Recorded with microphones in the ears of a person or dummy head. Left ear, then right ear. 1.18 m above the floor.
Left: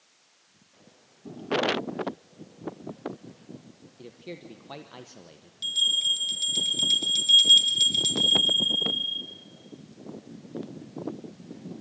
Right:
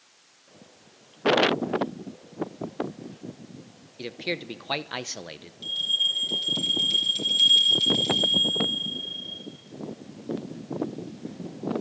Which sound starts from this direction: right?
A man speaking, at 4.0 s.